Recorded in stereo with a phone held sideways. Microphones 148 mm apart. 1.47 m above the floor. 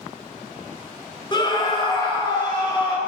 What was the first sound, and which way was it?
A scream, 30° left (ahead or behind).